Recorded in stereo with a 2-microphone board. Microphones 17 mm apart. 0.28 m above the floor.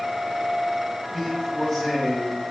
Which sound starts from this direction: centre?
A man speaking, at 1.1 s.